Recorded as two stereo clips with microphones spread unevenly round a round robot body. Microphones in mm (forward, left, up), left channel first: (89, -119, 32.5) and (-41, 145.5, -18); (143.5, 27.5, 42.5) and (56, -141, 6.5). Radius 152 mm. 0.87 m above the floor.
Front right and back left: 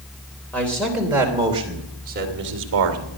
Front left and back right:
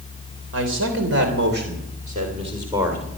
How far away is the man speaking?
About 3 m.